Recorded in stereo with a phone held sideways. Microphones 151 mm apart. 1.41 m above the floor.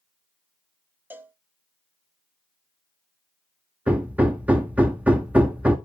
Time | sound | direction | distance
1.1 | a cowbell | 15° right (ahead or behind) | 0.8 m
3.9 | hammering | 10° right (ahead or behind) | 1.1 m